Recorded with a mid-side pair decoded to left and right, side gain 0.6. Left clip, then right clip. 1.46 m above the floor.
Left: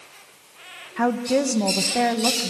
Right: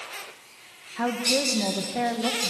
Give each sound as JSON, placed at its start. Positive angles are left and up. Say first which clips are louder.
{"t": 1.0, "sound": "a woman speaking", "louder": "left 3 dB", "azimuth_deg": 25, "distance_m": 1.7}